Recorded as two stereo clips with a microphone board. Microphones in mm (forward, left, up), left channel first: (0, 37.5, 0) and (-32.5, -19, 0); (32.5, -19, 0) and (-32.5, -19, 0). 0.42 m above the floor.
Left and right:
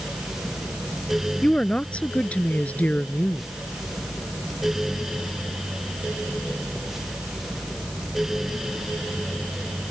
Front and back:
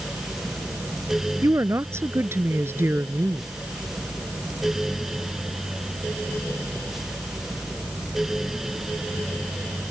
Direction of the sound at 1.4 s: 135° left.